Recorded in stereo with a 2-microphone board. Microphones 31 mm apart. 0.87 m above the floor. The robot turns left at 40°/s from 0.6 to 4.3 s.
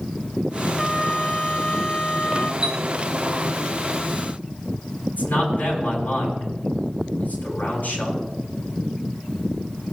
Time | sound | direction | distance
0.8 | a trumpet | 170° right | 1.8 m
2.6 | a chime | 20° right (ahead or behind) | 1.3 m
5.2 | a man speaking | 70° left (ahead or behind) | 6.5 m